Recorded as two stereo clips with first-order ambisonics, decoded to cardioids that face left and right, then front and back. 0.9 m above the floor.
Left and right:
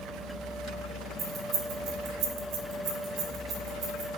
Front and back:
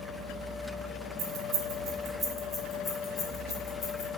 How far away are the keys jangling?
About 0.7 m.